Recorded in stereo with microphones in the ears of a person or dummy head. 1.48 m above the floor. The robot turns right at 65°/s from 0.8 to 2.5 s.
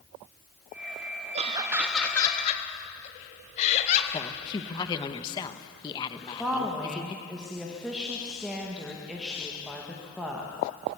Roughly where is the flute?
I don't hear a flute.